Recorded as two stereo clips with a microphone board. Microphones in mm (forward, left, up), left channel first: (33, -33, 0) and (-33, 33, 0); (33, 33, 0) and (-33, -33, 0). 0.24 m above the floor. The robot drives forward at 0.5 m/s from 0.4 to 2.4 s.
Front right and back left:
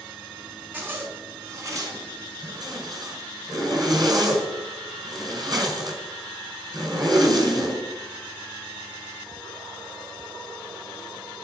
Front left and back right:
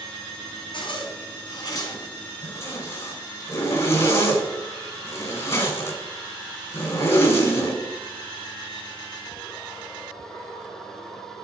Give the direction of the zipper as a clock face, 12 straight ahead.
10 o'clock.